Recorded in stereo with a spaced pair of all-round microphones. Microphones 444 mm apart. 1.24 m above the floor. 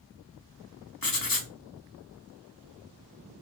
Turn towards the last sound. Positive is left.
turn(degrees=50)  # may be behind; listen again after turning